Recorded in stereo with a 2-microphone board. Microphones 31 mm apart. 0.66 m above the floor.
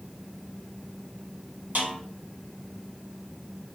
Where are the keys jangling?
No keys jangling in this recording.